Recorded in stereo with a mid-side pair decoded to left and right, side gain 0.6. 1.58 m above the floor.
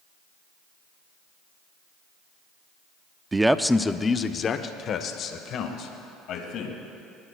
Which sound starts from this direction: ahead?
A man speaking, at 3.3 s.